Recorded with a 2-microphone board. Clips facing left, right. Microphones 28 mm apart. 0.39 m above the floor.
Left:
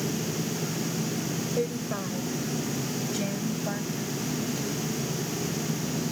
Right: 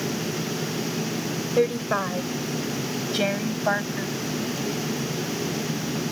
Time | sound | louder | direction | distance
1.6 | a woman speaking | right 11 dB | 45° right (ahead or behind) | ?